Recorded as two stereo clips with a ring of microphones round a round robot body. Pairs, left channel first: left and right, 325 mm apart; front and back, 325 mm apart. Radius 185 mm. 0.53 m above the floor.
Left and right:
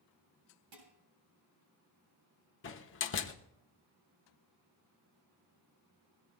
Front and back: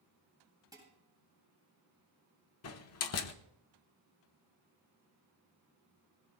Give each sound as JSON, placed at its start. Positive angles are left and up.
{"t": 0.7, "sound": "dishes clattering", "azimuth_deg": -100, "distance_m": 8.5}
{"t": 2.6, "sound": "a door slam", "azimuth_deg": 40, "distance_m": 1.0}